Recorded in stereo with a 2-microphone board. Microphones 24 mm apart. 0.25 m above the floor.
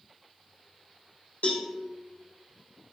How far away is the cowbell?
About 2.5 m.